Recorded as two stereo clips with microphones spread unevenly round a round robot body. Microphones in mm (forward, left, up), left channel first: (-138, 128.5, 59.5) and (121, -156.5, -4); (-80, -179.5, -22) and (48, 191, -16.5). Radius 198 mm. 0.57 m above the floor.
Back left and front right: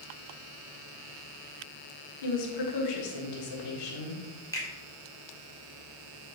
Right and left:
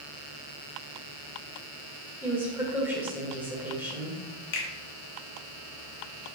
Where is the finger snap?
140° right, 1.8 m.